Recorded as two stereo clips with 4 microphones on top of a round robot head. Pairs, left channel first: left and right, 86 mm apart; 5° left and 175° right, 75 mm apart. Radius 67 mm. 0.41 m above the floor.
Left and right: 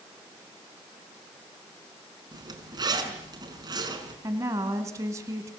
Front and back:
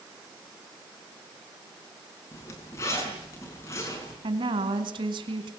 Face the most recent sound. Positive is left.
turn(degrees=-150)